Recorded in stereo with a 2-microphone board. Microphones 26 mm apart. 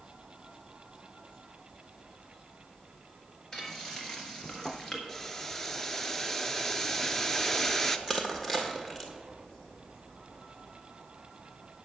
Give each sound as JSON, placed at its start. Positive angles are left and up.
{"t": 3.5, "sound": "frying", "side_deg": 30, "distance_m": 1.7}
{"t": 5.1, "sound": "boiling", "side_deg": 15, "distance_m": 0.6}
{"t": 8.1, "sound": "crushing", "side_deg": 20, "distance_m": 1.4}